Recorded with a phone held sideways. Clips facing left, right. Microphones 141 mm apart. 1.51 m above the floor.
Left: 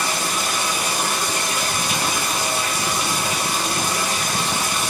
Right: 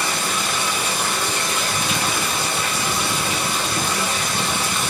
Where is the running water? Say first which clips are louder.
Even; 40° left (ahead or behind), 1.5 m.